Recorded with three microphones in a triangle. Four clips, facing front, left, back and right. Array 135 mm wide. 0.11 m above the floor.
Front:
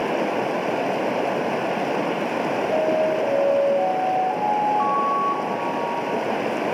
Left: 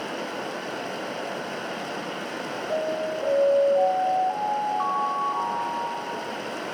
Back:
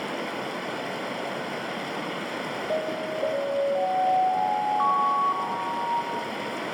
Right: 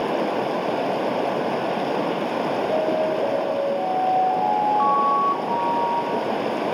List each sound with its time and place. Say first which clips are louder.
0.0 s running water: right 9 dB, front 9 dB; 50° right, 0.7 m
2.7 s an alarm: right 3 dB, front 8 dB; 110° right, 2.5 m